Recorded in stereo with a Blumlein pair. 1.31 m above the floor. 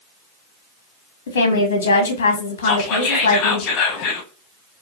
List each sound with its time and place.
1.3 s a woman speaking: 60° left, 0.8 m
2.6 s whispering: 35° left, 1.4 m